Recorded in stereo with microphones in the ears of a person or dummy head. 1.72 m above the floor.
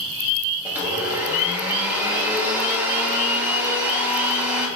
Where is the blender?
5° right (ahead or behind), 0.7 m.